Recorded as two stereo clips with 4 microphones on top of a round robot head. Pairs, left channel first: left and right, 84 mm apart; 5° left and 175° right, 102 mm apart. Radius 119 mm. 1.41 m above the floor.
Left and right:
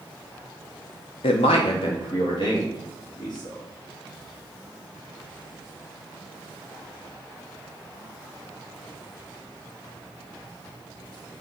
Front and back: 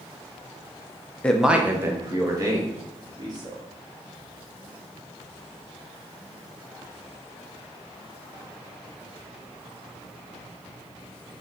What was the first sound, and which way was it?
A man speaking, 85° left.